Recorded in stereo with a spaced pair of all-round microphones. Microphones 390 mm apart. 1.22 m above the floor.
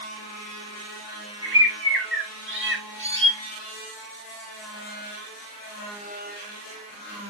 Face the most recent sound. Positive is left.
turn(degrees=-30)  # may be behind; listen again after turning